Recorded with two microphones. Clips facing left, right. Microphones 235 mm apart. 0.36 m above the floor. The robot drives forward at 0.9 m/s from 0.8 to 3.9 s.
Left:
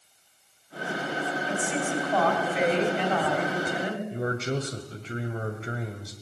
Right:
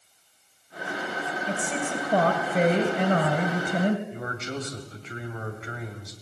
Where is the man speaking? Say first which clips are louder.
Left 5 dB; 35° left (ahead or behind), 2 m.